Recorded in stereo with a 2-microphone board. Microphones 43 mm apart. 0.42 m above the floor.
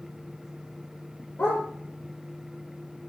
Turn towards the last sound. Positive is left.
turn(degrees=60)  # may be behind; listen again after turning